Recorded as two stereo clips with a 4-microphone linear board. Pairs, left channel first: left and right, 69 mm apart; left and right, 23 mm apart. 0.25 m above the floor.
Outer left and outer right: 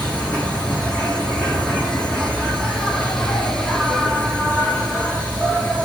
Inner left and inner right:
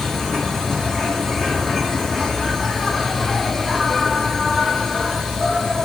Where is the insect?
20° left (ahead or behind), 2.0 m.